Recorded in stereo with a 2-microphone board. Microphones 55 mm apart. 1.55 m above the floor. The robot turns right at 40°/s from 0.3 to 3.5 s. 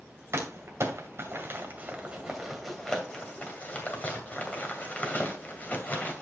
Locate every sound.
0.3 s crumpling: 60° right (ahead or behind), 2 m; by 6.2 s 30° left (ahead or behind), 2 m